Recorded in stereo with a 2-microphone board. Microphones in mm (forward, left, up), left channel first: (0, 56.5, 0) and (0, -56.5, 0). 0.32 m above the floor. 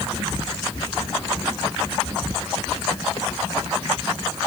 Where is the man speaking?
No man speaking in this recording.